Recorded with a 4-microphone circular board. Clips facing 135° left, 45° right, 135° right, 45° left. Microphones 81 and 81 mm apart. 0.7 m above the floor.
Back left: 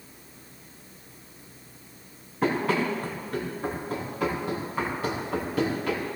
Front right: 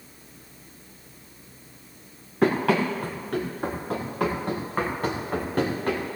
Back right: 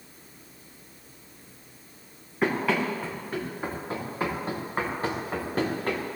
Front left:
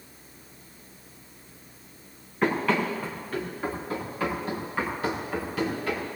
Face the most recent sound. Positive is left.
turn(degrees=-95)